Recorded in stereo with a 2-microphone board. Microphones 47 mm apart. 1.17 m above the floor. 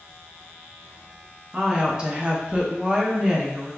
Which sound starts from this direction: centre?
A woman speaking, at 1.5 s.